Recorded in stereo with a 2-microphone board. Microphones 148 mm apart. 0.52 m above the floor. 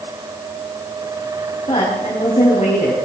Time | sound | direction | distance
1.7 | a woman speaking | 45° left (ahead or behind) | 3.5 m